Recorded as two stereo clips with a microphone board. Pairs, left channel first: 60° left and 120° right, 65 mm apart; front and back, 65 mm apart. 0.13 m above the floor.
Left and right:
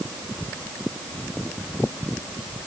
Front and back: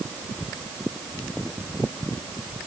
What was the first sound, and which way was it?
Only background noise.